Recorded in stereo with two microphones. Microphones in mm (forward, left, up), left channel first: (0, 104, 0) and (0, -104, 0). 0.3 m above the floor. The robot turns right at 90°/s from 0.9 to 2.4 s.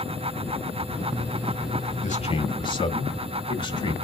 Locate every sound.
2.0 s a man speaking: 110° left, 1.4 m; by 4.0 s 140° left, 1.4 m